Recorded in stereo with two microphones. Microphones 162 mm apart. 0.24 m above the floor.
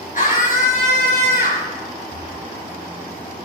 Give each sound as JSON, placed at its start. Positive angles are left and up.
{"t": 0.1, "sound": "a scream", "side_deg": 55, "distance_m": 4.0}
{"t": 2.1, "sound": "breathing", "side_deg": 75, "distance_m": 4.5}